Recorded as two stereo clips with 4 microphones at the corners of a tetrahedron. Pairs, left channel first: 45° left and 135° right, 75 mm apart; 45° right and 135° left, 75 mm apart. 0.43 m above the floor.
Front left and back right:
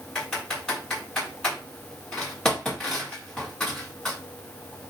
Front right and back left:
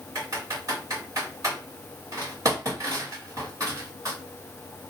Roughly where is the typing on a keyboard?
Behind left.